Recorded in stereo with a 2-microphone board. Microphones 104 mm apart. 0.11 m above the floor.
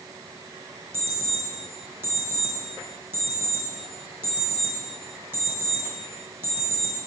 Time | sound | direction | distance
0.9 | an alarm clock | 20° right (ahead or behind) | 3 m